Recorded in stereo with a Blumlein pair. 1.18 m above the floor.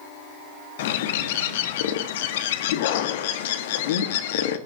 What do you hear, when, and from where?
0.8 s a bird: 55° left, 1.7 m